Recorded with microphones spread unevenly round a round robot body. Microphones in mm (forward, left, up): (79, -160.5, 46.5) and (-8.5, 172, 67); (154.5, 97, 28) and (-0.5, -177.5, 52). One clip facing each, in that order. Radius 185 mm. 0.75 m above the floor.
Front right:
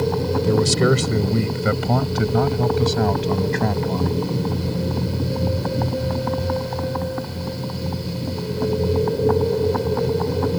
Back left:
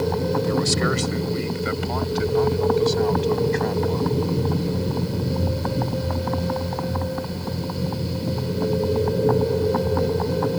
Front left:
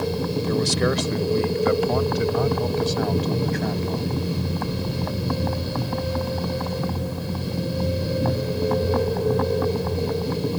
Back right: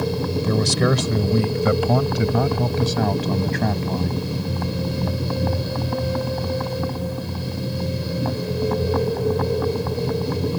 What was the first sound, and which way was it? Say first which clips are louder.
A man speaking: front right 5 dB, back right 2 dB; 130° right.